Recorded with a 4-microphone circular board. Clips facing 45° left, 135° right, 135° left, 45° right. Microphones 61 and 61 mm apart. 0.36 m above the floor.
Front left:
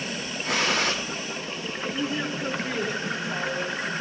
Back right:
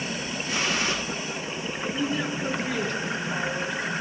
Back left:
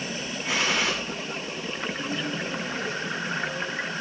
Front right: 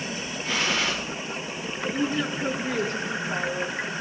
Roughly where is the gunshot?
Ahead left.